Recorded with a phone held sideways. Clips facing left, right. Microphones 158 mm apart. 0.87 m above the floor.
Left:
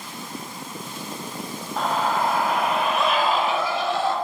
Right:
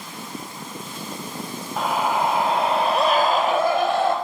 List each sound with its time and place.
1.8 s a scream: 5° right (ahead or behind), 2.5 m; by 4.2 s 60° right (ahead or behind), 3.5 m